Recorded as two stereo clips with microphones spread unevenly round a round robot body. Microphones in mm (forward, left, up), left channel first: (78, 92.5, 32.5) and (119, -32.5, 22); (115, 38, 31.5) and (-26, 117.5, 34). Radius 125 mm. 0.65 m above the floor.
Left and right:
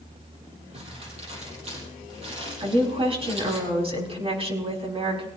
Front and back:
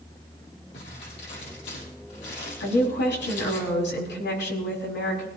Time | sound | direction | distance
0.7 | crumpling | 35° right | 6.5 m
2.6 | a woman speaking | 30° right | 4.5 m